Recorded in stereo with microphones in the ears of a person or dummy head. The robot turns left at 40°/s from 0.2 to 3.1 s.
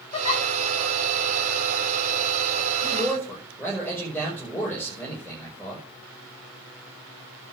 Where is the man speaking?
30° left (ahead or behind), 6 m; by 5.8 s 15° left (ahead or behind), 6 m.